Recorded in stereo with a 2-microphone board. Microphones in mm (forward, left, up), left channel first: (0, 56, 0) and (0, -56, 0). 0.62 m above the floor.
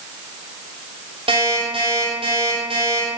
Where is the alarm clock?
55° right (ahead or behind), 8 m.